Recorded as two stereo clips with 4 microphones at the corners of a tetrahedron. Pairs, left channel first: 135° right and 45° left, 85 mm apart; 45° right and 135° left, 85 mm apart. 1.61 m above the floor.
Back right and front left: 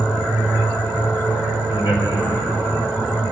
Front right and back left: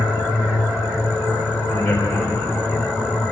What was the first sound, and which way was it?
A man speaking, 110° right.